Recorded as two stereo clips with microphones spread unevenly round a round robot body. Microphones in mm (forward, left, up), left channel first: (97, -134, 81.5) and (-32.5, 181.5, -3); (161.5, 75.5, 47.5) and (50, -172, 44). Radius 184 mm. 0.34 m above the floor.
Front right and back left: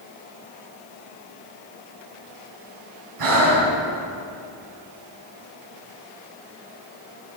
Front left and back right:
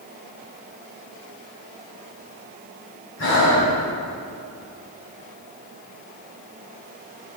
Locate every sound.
3.2 s breathing: 115° left, 2 m